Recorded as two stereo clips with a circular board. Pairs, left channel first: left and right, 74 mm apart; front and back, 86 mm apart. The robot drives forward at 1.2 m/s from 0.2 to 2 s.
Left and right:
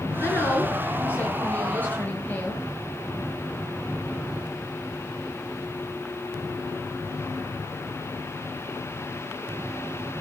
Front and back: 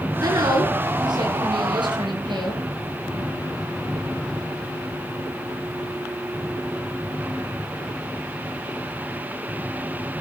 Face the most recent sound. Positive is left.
turn(degrees=155)